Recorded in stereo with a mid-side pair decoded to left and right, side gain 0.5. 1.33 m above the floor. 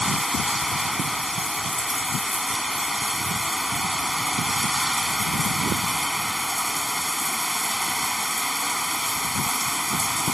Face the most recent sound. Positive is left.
turn(degrees=5)